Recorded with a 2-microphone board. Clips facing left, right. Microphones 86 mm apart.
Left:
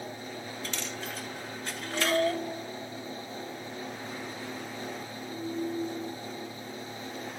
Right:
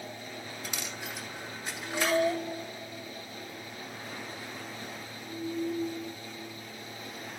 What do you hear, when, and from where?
0.6 s a dropped coin: 10° right (ahead or behind), 1.3 m